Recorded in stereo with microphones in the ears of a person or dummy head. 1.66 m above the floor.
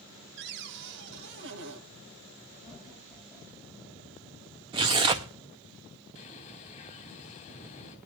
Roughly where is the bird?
Left.